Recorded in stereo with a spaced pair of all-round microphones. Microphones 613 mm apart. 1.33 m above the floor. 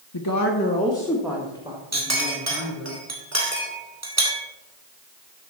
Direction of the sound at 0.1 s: 45° left (ahead or behind).